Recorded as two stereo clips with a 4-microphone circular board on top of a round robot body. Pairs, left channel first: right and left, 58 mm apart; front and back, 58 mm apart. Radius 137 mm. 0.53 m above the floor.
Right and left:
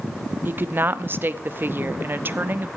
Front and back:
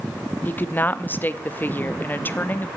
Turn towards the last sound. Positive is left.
turn(degrees=50)